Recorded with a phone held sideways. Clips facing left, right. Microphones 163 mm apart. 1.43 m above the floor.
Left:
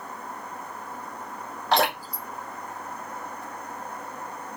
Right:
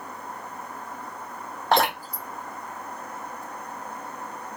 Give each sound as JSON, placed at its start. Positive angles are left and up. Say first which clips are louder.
{"t": 1.7, "sound": "dripping", "louder": "right 1 dB", "side_deg": -50, "distance_m": 1.1}